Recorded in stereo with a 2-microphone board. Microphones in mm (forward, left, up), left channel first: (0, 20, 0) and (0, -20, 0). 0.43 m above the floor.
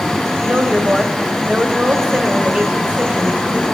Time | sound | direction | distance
0.4 | a woman speaking | 30° right (ahead or behind) | 2 m